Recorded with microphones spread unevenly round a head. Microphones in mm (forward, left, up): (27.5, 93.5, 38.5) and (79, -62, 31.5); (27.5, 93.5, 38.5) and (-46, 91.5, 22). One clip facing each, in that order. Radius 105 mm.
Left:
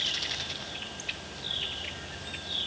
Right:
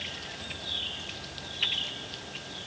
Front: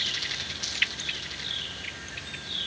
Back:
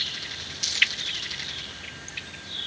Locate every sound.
Only background noise.